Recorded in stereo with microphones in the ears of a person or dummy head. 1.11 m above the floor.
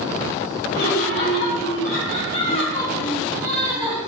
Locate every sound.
0.7 s laughter: 50° left (ahead or behind), 1.3 m; by 4.0 s 35° right (ahead or behind), 0.7 m